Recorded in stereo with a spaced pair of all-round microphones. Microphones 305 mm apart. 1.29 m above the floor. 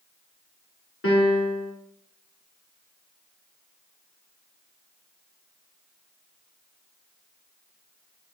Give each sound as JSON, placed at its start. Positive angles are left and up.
{"t": 1.0, "sound": "a piano", "side_deg": 45, "distance_m": 1.3}